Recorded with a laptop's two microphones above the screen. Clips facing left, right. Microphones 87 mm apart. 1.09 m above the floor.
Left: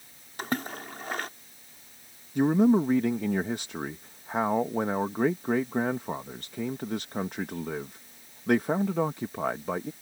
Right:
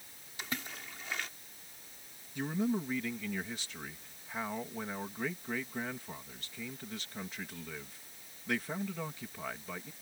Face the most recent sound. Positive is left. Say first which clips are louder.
# left 12 dB
turn(degrees=55)  # may be behind; listen again after turning